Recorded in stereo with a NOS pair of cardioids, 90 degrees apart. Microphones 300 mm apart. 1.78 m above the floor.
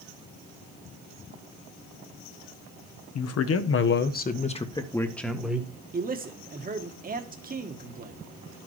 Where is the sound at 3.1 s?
60° left, 1.5 m; by 5.7 s 5° right, 1.8 m.